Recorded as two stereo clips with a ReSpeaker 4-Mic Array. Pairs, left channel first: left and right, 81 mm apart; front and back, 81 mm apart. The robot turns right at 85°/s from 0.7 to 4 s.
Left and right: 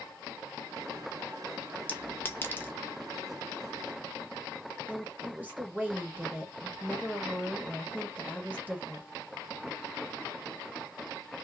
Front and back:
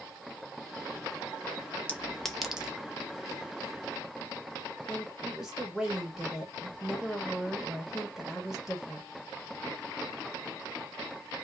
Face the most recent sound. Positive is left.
turn(degrees=-110)